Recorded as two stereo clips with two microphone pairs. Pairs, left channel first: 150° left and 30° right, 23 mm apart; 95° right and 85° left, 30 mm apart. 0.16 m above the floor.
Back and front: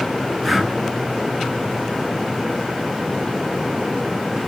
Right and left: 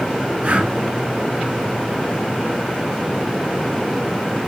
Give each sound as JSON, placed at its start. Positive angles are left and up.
{"t": 0.4, "sound": "breathing", "azimuth_deg": 55, "distance_m": 0.7}